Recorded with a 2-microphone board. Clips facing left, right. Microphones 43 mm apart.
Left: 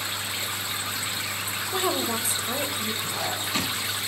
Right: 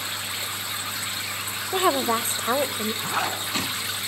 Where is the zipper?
50° right (ahead or behind), 4 m.